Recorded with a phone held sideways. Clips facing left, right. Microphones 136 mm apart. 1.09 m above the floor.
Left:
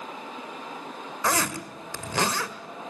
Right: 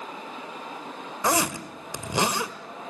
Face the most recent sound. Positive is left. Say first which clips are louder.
# right 2 dB
turn(degrees=-20)  # may be behind; listen again after turning